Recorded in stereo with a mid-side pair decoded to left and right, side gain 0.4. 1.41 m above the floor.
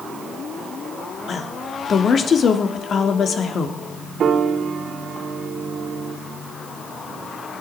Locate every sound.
1.3 s a woman speaking: 55° left, 3 m
4.2 s a piano: 65° right, 2.5 m